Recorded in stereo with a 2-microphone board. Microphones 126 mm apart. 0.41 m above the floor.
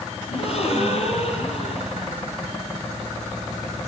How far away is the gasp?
About 6 m.